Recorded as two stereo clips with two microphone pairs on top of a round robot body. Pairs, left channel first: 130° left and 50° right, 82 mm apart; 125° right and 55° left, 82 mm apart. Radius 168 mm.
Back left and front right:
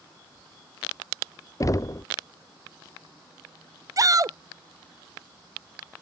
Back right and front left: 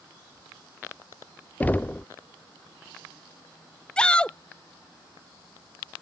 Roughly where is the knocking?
Behind left.